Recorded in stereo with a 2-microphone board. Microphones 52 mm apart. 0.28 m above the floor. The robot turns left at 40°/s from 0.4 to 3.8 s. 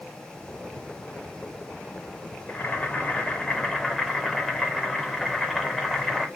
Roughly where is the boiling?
Ahead left.